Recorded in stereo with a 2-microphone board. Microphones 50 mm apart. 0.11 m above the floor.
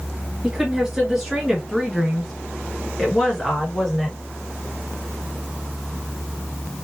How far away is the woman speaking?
About 2.0 m.